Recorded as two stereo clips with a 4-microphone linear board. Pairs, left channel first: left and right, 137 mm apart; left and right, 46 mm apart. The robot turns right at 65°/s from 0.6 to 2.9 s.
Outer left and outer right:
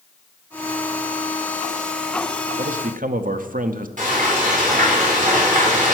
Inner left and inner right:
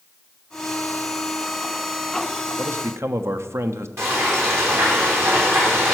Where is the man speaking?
65° right (ahead or behind), 0.7 m; by 3.9 s 85° right, 0.7 m.